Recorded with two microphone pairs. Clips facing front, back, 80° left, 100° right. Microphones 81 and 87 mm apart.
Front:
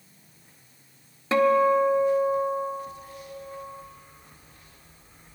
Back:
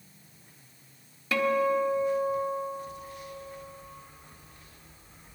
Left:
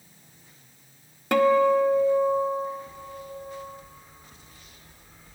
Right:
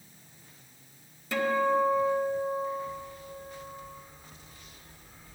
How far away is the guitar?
About 0.7 m.